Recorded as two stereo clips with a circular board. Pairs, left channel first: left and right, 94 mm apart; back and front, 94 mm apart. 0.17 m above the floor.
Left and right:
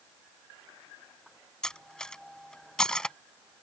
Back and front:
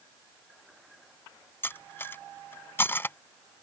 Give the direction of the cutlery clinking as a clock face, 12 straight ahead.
7 o'clock.